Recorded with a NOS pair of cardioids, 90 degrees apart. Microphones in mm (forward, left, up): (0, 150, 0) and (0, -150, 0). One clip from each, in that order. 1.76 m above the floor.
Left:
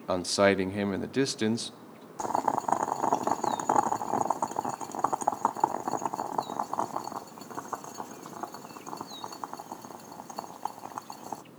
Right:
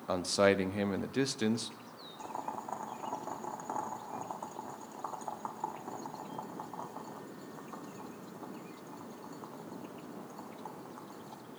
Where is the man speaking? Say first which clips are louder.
Left 4 dB; 20° left, 0.6 m.